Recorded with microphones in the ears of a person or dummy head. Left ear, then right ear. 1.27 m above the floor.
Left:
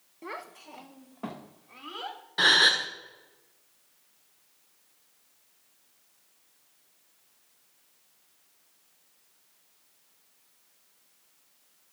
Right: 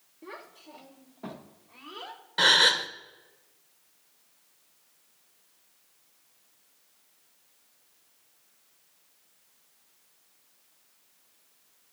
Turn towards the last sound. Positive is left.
turn(degrees=-10)  # may be behind; listen again after turning